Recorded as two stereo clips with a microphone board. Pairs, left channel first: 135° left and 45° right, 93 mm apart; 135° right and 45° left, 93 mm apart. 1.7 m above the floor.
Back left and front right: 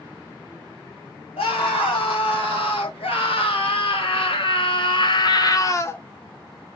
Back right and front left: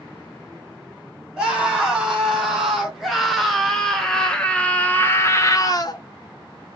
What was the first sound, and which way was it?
A scream, 125° left.